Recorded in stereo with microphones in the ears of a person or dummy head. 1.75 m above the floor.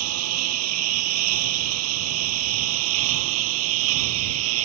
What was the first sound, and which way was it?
A lawn mower, 85° right.